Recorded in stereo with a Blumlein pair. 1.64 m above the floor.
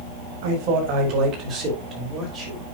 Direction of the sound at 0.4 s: 45° right.